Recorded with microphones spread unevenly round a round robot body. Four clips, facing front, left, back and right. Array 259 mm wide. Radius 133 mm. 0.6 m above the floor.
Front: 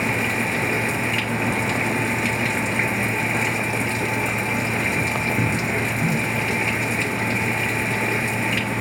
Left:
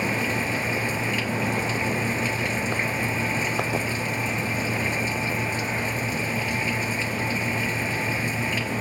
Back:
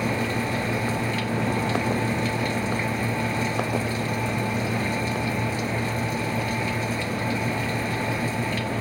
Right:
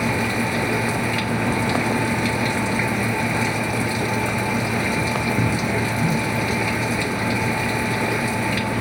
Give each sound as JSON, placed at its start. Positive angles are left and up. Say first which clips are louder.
{"t": 0.0, "sound": "running water", "louder": "right 4 dB, front 2 dB", "azimuth_deg": -45}